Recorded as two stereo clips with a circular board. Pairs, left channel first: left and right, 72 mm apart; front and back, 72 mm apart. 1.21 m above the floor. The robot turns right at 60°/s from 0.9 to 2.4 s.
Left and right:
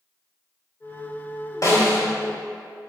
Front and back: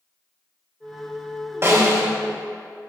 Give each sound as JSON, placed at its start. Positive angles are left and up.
{"t": 1.6, "sound": "a snare drum", "azimuth_deg": 125, "distance_m": 2.5}